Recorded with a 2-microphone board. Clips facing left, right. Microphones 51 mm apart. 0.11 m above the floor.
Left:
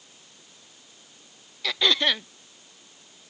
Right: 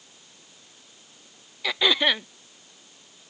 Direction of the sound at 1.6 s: 10° right (ahead or behind).